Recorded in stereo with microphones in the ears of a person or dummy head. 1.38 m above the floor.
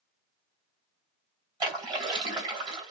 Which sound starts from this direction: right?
A splash, at 1.6 s.